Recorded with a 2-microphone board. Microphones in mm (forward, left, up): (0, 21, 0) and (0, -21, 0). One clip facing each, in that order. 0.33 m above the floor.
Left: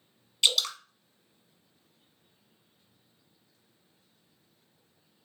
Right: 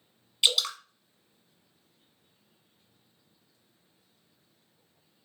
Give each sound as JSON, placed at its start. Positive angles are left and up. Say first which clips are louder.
{"t": 0.4, "sound": "dripping", "louder": "even", "side_deg": -10, "distance_m": 0.7}